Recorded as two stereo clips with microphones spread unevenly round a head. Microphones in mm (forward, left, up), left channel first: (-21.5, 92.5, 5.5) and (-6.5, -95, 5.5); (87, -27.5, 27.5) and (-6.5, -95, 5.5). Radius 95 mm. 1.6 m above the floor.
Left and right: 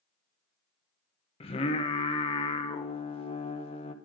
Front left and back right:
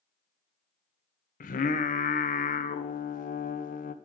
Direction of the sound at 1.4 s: 30° left.